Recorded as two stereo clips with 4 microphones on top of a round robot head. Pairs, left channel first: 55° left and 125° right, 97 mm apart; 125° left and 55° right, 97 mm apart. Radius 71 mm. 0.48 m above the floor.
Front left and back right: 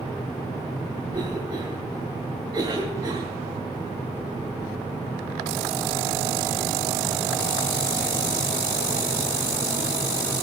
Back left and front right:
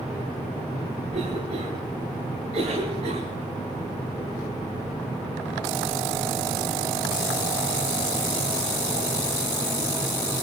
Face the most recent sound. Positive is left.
turn(degrees=-75)